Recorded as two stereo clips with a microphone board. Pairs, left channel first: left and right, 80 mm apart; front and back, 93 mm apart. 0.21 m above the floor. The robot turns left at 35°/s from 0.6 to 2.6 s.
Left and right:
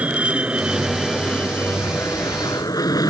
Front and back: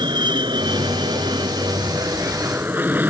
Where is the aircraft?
160° right; by 3.1 s 115° left.